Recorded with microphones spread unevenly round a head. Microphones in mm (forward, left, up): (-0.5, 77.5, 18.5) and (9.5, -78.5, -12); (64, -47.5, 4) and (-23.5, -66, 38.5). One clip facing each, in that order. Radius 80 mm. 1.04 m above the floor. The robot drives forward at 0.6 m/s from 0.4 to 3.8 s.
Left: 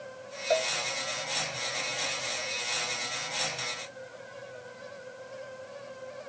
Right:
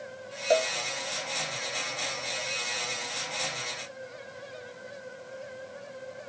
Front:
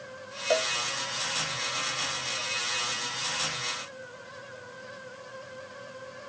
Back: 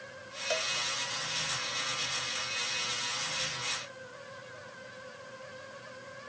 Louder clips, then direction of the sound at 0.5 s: Right 3 dB, front 8 dB; 30° right.